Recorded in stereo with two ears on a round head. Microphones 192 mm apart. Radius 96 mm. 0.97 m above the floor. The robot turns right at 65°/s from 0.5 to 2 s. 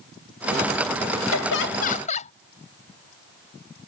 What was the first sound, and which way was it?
Laughter, 100° left.